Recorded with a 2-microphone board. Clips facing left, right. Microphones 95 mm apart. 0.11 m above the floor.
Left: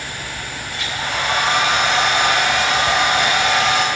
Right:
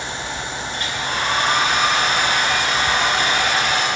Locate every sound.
0.7 s a hair dryer: 75° left (ahead or behind), 5.5 m